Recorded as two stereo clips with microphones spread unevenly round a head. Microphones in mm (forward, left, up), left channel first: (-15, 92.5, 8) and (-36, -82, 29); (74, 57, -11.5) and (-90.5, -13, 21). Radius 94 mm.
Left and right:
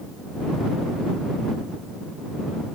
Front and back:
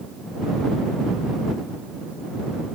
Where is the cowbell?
No cowbell in this recording.